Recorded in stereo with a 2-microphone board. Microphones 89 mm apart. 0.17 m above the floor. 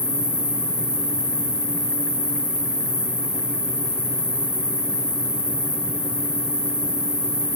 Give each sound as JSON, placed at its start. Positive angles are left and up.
{"t": 0.0, "sound": "an insect", "side_deg": 10, "distance_m": 6.0}